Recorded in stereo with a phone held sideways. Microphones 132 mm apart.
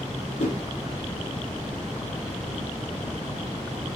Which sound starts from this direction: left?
A whoosh, at 0.4 s.